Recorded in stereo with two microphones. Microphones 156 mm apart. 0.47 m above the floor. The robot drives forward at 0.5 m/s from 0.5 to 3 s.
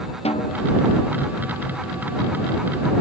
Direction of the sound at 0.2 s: 40° left (ahead or behind).